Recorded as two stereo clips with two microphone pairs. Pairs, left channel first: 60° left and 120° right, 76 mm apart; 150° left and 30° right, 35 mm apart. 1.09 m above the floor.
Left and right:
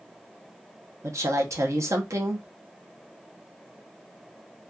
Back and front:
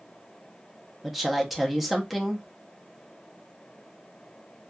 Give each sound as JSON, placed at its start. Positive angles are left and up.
{"t": 1.0, "sound": "a woman speaking", "azimuth_deg": -120, "distance_m": 0.6}